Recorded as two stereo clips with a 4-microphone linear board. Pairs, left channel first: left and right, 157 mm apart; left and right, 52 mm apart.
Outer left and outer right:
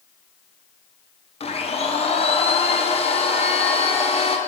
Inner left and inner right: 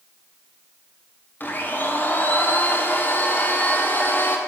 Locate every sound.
1.4 s a blender: 40° left (ahead or behind), 0.6 m